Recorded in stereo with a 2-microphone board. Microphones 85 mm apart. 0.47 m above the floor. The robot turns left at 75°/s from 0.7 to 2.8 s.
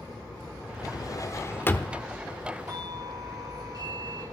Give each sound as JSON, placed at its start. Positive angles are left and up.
{"t": 0.8, "sound": "a drawer", "azimuth_deg": 100, "distance_m": 0.7}
{"t": 2.7, "sound": "a doorbell", "side_deg": -40, "distance_m": 4.5}